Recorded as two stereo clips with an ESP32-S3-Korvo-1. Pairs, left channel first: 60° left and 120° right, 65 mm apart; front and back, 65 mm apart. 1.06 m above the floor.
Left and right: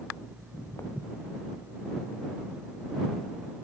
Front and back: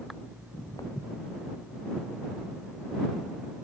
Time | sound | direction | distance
0.4 | footsteps | 15° left | ?